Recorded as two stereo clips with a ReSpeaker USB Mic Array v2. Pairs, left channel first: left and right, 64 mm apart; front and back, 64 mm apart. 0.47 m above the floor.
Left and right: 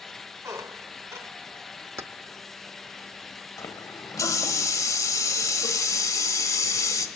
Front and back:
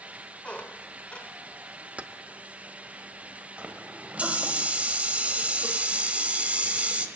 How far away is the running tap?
About 1.3 m.